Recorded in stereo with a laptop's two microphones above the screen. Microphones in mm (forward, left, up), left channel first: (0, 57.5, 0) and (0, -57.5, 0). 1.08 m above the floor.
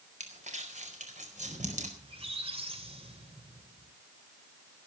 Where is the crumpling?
75° right (ahead or behind), 4.5 m.